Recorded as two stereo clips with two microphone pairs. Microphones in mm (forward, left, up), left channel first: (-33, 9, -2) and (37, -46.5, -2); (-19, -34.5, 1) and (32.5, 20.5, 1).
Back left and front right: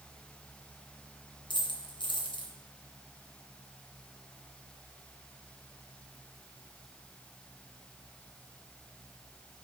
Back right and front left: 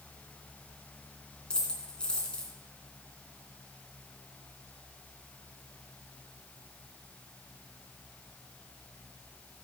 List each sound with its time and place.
1.5 s a dropped coin: 150° left, 2.5 m